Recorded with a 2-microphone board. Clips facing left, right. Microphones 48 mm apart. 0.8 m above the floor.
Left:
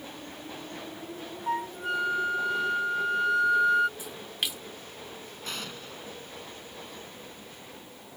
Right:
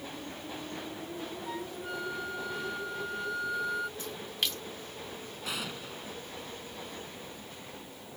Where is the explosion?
5° right (ahead or behind).